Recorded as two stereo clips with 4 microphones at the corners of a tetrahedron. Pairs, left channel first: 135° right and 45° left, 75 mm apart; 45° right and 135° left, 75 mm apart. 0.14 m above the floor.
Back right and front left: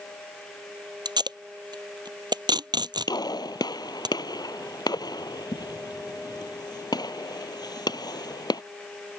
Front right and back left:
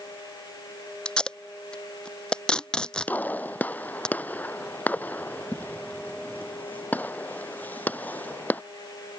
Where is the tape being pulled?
35° left.